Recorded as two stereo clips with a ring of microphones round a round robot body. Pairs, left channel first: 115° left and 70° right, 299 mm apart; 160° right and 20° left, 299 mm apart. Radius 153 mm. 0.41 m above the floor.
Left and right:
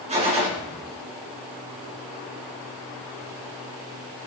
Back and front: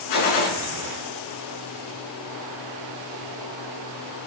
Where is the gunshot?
135° right, 3.5 m.